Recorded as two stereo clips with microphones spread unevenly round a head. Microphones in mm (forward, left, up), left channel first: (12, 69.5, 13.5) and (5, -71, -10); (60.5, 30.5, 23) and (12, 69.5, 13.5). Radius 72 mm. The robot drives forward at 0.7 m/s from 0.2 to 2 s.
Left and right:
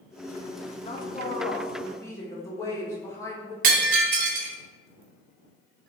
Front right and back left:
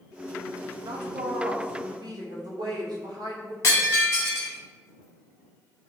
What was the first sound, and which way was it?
A woman speaking, 140° left.